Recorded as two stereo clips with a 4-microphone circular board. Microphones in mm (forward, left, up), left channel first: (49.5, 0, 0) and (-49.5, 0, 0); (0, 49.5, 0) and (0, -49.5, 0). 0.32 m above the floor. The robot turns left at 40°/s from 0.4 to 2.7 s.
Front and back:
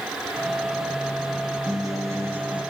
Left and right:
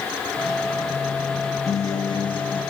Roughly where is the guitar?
Behind left.